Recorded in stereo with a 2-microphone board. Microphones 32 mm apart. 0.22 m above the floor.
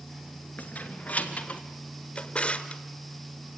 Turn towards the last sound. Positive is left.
turn(degrees=40)  # may be behind; listen again after turning